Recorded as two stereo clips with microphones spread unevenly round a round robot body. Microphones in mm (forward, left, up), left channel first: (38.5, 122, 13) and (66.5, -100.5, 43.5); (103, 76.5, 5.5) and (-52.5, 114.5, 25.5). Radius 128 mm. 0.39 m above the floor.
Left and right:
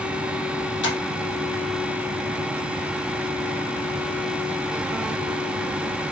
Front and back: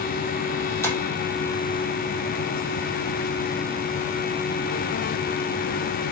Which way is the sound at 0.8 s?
60° left.